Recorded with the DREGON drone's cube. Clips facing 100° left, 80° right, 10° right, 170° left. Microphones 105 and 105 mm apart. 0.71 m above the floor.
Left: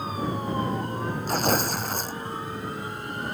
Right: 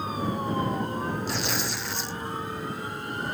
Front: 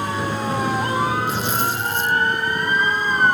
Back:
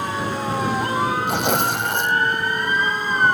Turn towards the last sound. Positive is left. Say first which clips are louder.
# left 6 dB, back 2 dB
turn(degrees=145)